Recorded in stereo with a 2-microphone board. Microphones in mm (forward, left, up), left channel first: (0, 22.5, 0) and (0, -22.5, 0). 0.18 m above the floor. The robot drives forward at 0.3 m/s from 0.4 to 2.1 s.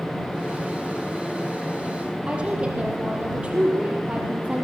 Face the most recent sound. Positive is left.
turn(degrees=-25)  # may be behind; listen again after turning